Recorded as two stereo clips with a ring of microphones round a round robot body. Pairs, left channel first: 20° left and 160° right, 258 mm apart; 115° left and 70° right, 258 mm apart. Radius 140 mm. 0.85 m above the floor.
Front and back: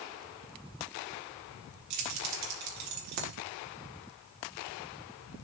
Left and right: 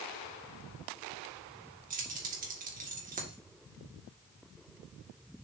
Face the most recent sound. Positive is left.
turn(degrees=-130)